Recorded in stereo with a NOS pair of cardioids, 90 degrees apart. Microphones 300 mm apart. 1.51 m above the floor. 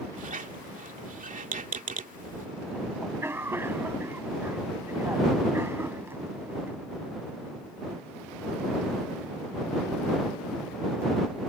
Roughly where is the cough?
Ahead.